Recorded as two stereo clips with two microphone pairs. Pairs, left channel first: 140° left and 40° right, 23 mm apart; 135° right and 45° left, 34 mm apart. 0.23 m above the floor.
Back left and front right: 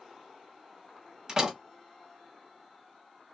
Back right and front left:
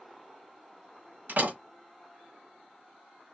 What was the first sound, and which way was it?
A door slam, 25° left.